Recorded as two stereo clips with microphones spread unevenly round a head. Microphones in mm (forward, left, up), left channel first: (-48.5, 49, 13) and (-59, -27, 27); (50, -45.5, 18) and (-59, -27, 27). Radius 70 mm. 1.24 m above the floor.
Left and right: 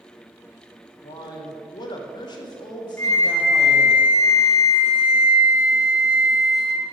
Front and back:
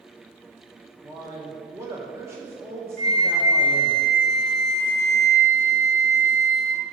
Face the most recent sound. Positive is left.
turn(degrees=140)